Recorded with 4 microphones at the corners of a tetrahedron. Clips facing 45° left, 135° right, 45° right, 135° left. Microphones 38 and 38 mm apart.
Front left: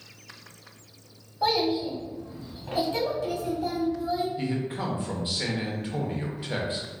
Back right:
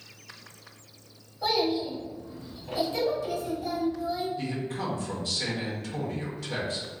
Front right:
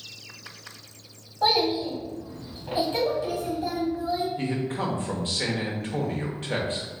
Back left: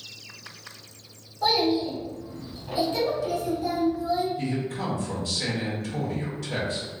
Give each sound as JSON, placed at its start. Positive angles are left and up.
{"t": 1.4, "sound": "a child speaking", "azimuth_deg": 20, "distance_m": 1.0}
{"t": 4.4, "sound": "a man speaking", "azimuth_deg": -10, "distance_m": 0.7}